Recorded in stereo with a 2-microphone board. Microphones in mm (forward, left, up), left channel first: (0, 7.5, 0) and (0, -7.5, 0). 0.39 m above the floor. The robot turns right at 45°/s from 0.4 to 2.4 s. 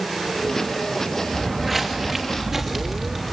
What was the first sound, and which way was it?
Footsteps, 10° right (ahead or behind).